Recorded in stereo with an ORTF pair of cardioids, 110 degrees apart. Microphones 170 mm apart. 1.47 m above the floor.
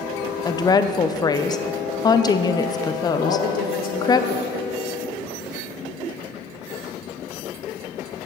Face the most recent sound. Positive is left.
turn(degrees=65)